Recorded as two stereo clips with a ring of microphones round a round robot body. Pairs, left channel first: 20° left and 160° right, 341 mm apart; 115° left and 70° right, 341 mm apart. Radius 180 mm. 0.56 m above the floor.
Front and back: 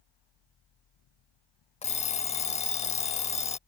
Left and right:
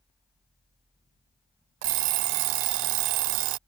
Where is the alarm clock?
50° right.